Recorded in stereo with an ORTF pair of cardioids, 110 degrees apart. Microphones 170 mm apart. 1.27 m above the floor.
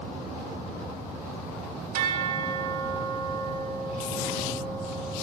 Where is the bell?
60° right, 2.5 m.